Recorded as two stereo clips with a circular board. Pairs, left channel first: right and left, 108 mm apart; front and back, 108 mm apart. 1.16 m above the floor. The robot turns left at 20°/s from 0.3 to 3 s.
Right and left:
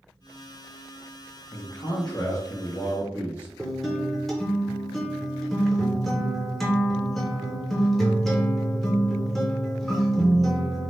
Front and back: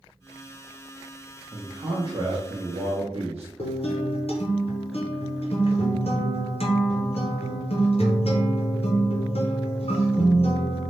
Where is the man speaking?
130° right, 0.6 m; by 3.5 s 155° right, 0.6 m.